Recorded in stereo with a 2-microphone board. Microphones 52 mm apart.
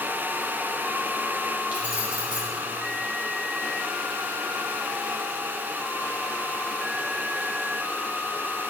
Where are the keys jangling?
30° right (ahead or behind), 1.8 m.